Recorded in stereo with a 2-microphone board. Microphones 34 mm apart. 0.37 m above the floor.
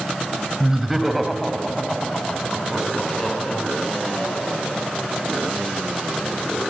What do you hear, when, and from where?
0.6 s laughter: 15° right (ahead or behind), 1.9 m; by 4.6 s 20° left (ahead or behind), 6 m